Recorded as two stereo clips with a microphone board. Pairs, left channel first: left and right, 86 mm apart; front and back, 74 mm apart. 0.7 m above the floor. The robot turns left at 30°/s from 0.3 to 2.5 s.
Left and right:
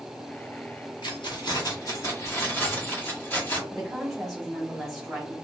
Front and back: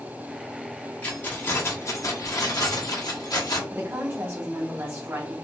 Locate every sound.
1.0 s keys jangling: 70° left, 1.1 m; by 3.6 s 25° left, 1.1 m
3.7 s a woman speaking: 175° left, 1.2 m